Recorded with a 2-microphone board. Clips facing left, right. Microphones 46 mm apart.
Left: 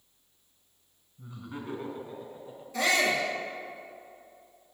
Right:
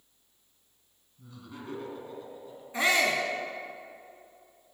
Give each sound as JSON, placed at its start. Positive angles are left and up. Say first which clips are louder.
{"t": 1.2, "sound": "laughter", "louder": "left 4 dB", "side_deg": 20, "distance_m": 1.5}
{"t": 2.7, "sound": "a shout", "louder": "even", "side_deg": -25, "distance_m": 1.1}